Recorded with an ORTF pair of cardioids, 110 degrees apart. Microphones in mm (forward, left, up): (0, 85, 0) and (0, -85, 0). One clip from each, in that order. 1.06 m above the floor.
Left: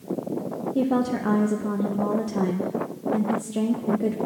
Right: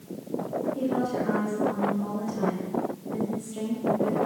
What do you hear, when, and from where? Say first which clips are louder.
0.8 s a woman speaking: left 7 dB; 60° left, 0.9 m